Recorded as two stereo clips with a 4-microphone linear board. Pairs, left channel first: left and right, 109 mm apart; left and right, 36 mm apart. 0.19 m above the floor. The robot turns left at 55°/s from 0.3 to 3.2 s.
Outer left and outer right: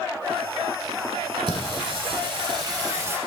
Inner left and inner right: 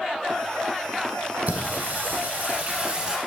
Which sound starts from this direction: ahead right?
Singing, at 1.5 s.